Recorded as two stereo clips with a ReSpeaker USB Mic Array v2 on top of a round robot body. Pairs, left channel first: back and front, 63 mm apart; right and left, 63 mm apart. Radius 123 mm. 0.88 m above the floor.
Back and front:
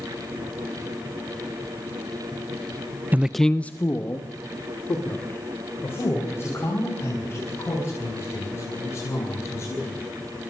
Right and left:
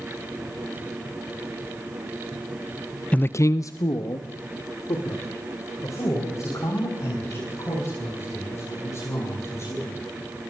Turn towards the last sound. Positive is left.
turn(degrees=-130)